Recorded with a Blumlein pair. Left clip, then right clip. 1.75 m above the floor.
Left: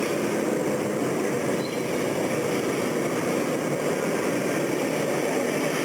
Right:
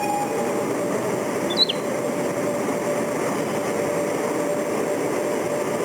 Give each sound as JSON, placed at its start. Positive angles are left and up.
{"t": 1.5, "sound": "a bird", "azimuth_deg": -45, "distance_m": 0.5}